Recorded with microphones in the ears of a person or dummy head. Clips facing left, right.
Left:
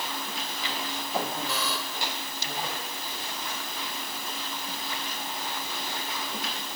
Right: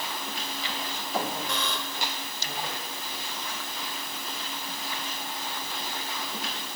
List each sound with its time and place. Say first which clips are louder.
1.5 s a buzzer: even; 5° left (ahead or behind)